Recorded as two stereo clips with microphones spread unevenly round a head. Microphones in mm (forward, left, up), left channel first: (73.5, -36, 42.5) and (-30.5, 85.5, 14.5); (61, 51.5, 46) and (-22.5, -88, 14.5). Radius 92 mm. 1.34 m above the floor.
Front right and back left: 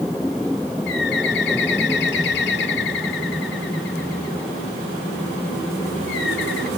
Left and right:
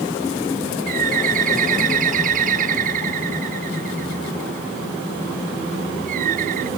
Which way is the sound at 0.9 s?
80° right.